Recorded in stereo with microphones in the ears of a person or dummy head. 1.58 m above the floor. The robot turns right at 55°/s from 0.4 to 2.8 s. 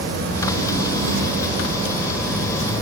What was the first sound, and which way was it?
An insect, 105° right.